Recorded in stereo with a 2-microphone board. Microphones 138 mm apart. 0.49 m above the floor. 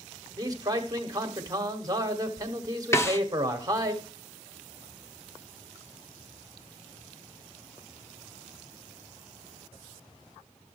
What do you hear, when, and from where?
0.4 s a man speaking: 30° right (ahead or behind), 1.2 m
2.9 s a snare drum: 20° left (ahead or behind), 0.6 m